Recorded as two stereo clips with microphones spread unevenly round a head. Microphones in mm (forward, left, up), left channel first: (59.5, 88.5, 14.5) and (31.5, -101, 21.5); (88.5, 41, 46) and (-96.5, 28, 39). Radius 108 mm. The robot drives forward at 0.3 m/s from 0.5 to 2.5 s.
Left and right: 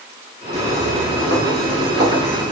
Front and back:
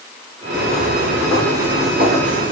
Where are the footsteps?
75° right, 1.9 m; by 2.5 s 155° right, 1.9 m.